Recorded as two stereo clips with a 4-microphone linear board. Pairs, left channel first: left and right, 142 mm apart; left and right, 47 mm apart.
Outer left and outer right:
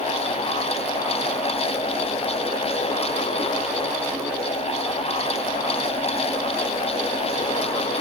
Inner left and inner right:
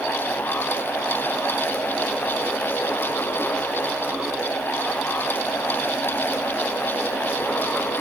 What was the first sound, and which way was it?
Only background noise.